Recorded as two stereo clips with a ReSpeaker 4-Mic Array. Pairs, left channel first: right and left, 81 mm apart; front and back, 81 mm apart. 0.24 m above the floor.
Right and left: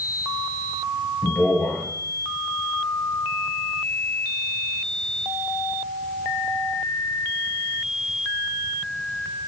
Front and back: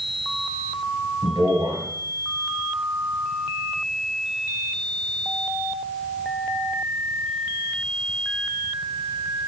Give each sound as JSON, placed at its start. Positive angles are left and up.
{"t": 1.2, "sound": "a man speaking", "azimuth_deg": -165, "distance_m": 3.5}